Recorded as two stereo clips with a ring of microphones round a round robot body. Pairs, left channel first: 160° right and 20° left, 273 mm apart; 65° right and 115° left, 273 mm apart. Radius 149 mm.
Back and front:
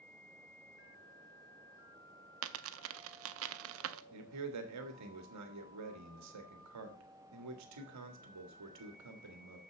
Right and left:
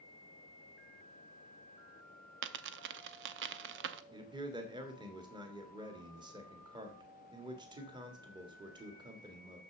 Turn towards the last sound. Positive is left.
turn(degrees=40)